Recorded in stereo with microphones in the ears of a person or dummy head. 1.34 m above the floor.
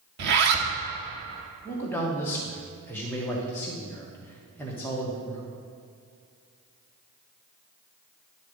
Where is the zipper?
60° right (ahead or behind), 1.0 m.